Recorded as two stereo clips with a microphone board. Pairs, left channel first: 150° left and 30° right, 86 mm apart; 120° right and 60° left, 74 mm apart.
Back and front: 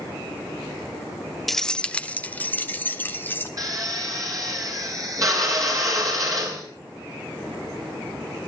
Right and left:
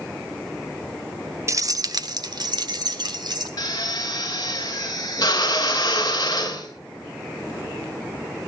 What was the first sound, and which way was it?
Keys jangling, 65° left.